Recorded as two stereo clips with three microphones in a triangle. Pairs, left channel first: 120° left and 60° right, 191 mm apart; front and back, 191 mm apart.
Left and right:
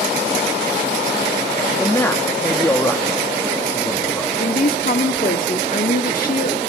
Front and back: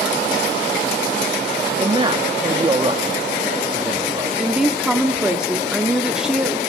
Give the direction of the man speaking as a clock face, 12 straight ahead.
6 o'clock.